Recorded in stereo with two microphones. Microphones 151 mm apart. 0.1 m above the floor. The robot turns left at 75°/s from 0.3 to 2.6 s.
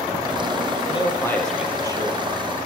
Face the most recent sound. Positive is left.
turn(degrees=-80)